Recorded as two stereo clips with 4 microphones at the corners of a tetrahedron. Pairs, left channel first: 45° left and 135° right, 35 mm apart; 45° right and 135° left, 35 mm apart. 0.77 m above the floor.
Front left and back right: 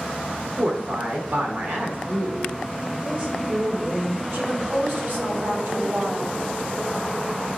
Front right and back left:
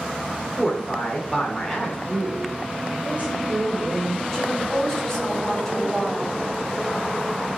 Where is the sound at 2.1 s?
175° right, 2.5 m.